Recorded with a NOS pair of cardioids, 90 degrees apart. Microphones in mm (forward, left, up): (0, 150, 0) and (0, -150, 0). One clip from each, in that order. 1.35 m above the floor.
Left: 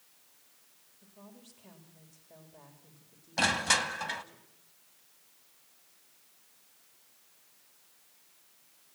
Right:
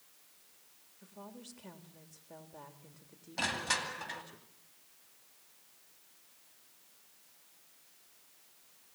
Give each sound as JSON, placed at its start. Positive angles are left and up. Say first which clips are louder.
{"t": 1.0, "sound": "a woman speaking", "louder": "right 5 dB", "azimuth_deg": -35, "distance_m": 3.5}
{"t": 3.4, "sound": "crushing", "louder": "left 7 dB", "azimuth_deg": 45, "distance_m": 2.0}